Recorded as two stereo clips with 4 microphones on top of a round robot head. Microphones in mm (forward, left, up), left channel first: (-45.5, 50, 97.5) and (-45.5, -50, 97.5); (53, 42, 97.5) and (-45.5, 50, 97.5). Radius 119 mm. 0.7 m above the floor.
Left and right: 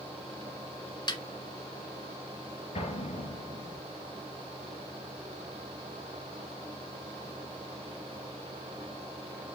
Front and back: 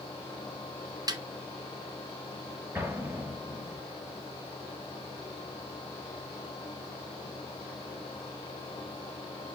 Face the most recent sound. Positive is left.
turn(degrees=105)